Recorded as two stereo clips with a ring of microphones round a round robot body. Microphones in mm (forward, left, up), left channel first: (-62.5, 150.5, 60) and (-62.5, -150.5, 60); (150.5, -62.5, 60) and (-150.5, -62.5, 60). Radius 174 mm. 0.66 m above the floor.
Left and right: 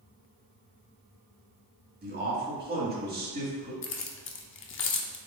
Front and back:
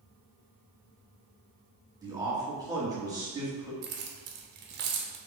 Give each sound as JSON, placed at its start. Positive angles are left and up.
{"t": 2.0, "sound": "a man speaking", "azimuth_deg": -110, "distance_m": 1.3}
{"t": 3.8, "sound": "keys jangling", "azimuth_deg": 135, "distance_m": 0.5}